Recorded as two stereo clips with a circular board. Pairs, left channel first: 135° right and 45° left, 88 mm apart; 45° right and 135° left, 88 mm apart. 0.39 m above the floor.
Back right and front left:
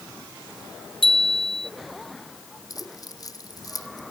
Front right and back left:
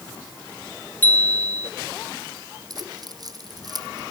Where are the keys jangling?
Straight behind.